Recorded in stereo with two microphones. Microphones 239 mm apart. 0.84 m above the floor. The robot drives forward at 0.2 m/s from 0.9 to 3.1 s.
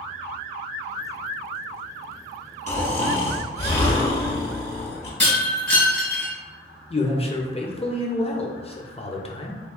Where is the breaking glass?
80° right, 1.7 m.